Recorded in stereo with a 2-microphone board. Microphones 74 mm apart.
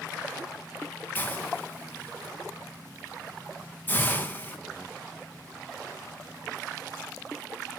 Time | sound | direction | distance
1.1 | a hiss | 25° left (ahead or behind) | 2 m